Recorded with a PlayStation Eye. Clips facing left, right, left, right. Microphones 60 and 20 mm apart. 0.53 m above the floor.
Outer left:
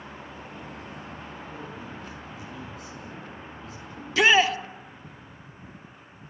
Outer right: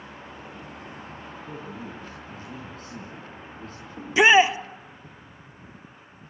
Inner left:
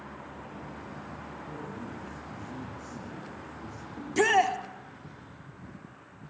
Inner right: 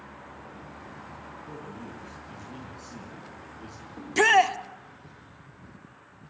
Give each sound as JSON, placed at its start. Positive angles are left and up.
{"t": 1.5, "sound": "a man speaking", "side_deg": -45, "distance_m": 6.5}
{"t": 4.0, "sound": "a shout", "side_deg": -20, "distance_m": 1.0}